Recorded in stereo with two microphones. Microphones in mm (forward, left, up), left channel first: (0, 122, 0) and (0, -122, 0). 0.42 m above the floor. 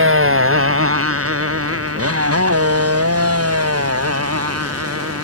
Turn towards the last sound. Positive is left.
turn(degrees=-80)